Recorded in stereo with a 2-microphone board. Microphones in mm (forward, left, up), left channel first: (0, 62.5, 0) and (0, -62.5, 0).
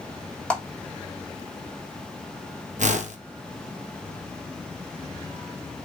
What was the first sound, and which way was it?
A clap, 10° left (ahead or behind).